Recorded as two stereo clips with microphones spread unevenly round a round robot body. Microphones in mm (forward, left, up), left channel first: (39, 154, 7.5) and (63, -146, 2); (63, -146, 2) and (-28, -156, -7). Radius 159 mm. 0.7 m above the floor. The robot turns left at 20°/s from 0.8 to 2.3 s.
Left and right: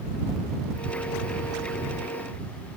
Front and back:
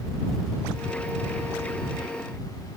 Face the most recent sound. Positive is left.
No sound to turn to.